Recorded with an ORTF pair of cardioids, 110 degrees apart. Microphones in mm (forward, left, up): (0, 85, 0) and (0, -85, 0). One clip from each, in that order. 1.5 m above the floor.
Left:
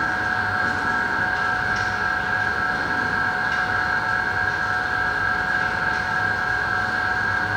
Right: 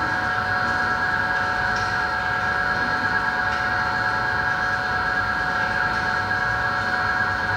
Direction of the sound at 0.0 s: 10° left.